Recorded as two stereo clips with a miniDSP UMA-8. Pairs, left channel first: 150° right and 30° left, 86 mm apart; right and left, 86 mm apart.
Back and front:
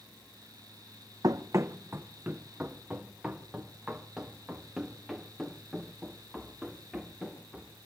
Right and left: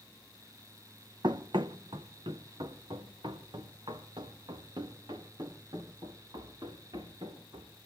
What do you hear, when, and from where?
1.2 s running footsteps: 65° left, 1.3 m; by 7.7 s 120° left, 9.5 m